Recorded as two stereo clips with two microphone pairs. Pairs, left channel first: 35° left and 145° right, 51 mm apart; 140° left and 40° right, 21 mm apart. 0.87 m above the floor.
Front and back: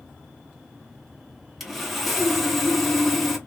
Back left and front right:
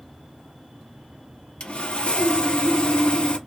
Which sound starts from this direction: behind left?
Sawing, at 1.6 s.